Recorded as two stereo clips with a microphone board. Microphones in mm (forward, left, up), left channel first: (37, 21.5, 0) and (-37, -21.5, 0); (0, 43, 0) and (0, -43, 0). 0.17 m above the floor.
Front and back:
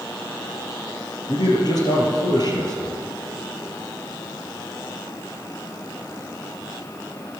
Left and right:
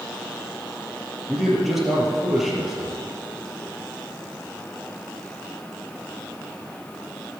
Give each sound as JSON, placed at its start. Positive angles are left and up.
{"t": 1.3, "sound": "a man speaking", "azimuth_deg": -5, "distance_m": 4.0}